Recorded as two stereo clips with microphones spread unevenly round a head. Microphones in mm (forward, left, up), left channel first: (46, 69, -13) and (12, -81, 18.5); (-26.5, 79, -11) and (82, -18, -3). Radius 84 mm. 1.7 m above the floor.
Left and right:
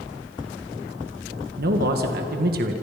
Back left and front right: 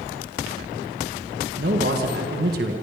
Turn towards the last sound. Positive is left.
turn(degrees=-80)